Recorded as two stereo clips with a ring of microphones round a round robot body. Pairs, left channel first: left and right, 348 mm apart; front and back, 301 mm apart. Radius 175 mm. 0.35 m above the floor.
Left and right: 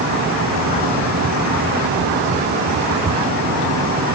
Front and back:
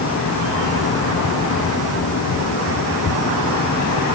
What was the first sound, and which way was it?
Only background noise.